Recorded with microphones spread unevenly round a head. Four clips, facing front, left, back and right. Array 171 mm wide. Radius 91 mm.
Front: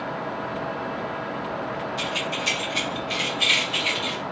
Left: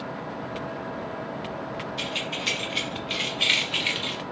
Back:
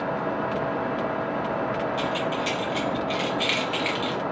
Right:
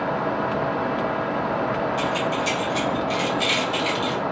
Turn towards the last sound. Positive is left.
turn(degrees=-125)